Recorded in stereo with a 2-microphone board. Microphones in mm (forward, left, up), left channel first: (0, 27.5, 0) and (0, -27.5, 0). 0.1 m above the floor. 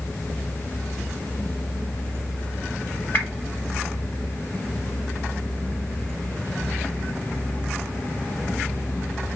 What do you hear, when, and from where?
3.1 s a whoosh: 35° left (ahead or behind), 3 m